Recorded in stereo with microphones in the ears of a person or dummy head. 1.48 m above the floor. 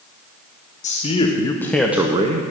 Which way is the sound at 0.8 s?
35° left (ahead or behind).